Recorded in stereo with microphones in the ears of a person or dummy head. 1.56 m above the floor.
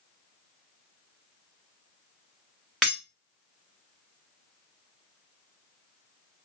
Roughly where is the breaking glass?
Centre.